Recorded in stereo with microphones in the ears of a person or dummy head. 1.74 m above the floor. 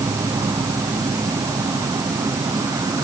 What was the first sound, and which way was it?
An insect, 20° right (ahead or behind).